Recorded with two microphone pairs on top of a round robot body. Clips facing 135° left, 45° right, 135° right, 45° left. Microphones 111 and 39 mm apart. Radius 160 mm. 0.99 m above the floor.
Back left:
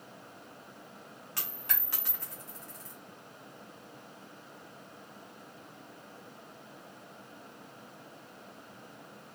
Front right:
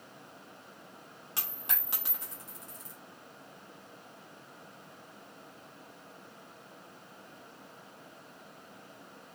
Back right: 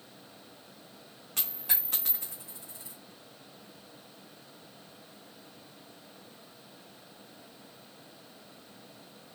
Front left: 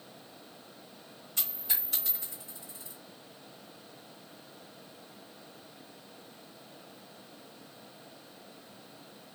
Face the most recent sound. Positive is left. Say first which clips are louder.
# even, back right 2 dB
turn(degrees=-115)